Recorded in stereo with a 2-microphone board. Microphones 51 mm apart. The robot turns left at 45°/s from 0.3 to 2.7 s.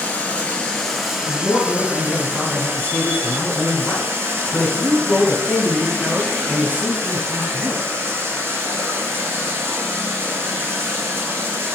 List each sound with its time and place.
0.0 s running water: 35° left, 0.9 m; by 11.8 s 70° right, 0.9 m
1.2 s a man speaking: 160° left, 1.2 m; by 7.8 s 95° left, 1.2 m